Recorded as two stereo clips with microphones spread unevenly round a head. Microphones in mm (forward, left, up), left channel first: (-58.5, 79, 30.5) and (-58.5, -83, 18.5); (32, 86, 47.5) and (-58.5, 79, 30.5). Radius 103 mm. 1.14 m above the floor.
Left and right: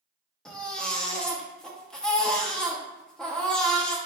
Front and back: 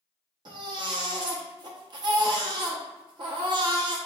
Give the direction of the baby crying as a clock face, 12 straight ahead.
6 o'clock.